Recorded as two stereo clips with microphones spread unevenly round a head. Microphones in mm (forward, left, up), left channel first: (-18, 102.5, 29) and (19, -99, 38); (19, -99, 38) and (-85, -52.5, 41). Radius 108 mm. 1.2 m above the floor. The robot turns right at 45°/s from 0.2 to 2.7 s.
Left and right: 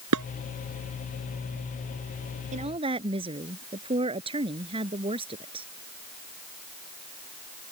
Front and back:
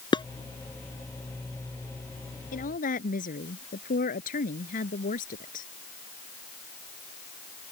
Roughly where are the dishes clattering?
Right.